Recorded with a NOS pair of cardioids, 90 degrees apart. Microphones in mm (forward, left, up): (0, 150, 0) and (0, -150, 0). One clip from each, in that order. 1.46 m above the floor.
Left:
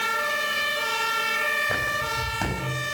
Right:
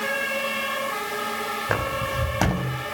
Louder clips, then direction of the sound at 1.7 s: Even; 60° right.